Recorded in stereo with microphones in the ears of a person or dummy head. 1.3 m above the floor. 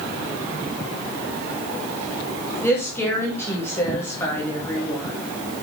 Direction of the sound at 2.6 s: 15° left (ahead or behind).